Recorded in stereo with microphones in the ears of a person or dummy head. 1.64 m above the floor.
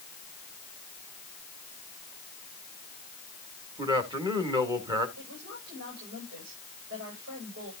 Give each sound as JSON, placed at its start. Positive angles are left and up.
{"t": 3.8, "sound": "a man speaking", "side_deg": -25, "distance_m": 2.0}
{"t": 5.2, "sound": "a woman speaking", "side_deg": -70, "distance_m": 8.0}